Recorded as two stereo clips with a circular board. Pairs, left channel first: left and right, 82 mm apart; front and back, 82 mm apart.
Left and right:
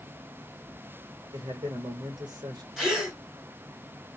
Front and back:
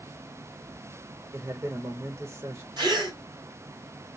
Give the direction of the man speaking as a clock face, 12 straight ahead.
4 o'clock.